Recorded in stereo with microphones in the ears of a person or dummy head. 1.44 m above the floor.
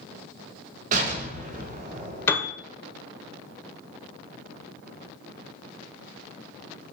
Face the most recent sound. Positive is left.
turn(degrees=15)  # may be behind; listen again after turning